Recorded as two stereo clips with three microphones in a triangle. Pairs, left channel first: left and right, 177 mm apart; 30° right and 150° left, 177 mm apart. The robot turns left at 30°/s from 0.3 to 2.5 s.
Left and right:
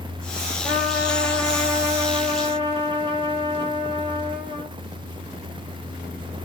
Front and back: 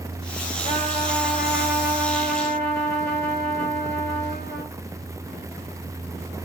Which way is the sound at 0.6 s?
25° left.